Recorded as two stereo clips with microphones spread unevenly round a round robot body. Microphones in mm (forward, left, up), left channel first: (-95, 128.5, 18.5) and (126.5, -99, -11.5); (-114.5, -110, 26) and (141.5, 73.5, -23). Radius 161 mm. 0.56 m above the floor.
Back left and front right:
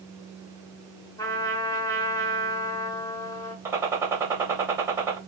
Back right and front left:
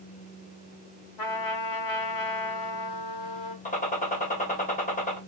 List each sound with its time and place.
1.2 s a trumpet: 145° right, 0.9 m
3.6 s a gunshot: 100° right, 1.0 m